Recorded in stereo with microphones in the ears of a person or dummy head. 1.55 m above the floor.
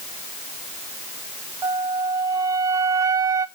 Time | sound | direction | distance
1.6 | a flute | 15° right (ahead or behind) | 0.7 m